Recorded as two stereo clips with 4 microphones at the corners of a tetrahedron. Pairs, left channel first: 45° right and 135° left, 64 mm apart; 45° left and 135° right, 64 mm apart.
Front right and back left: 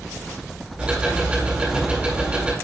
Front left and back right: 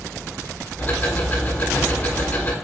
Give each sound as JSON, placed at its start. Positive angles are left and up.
{"t": 0.8, "sound": "ticking", "azimuth_deg": 80, "distance_m": 1.6}